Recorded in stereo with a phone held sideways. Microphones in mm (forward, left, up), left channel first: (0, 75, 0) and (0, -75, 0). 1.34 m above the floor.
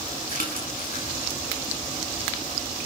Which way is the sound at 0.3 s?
75° left (ahead or behind).